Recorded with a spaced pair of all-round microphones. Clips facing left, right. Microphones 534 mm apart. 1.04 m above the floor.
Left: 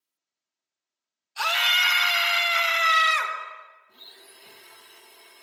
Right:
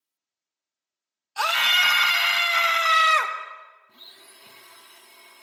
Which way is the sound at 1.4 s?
70° right (ahead or behind).